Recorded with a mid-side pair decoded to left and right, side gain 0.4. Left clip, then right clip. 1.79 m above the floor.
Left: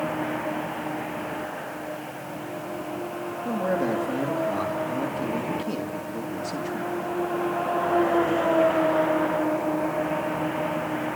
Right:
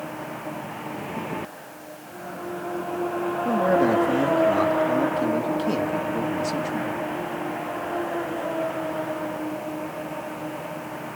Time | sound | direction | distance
3.5 | a man speaking | 35° right | 3.5 m